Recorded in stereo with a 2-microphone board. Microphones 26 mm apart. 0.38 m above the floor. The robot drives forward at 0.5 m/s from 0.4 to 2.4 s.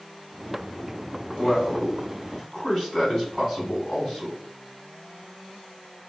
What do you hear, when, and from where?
1.4 s a man speaking: 5° left (ahead or behind), 1.5 m